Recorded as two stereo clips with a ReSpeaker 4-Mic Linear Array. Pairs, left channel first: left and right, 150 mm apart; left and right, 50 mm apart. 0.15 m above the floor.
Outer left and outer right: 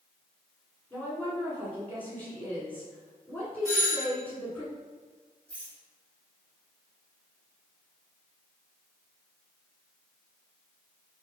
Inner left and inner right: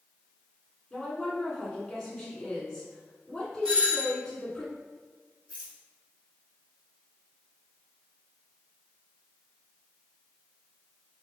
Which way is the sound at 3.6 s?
20° right (ahead or behind).